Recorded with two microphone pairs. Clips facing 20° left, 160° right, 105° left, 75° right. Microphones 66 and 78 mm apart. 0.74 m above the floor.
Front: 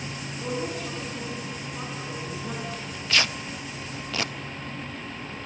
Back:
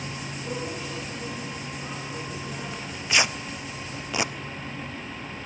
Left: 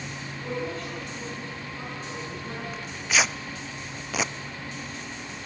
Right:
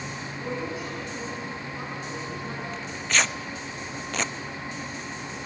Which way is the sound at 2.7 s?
Straight behind.